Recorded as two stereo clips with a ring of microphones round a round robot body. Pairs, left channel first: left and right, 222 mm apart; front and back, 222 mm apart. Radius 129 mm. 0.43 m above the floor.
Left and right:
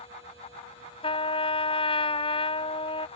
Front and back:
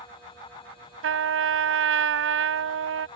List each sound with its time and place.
1.0 s a trumpet: 160° left